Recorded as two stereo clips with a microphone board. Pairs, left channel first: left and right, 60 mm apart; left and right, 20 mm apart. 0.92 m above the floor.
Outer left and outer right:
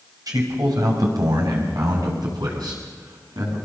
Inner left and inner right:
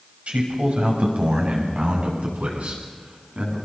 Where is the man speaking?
70° right (ahead or behind), 5.5 m; by 3.5 s 85° right, 9 m.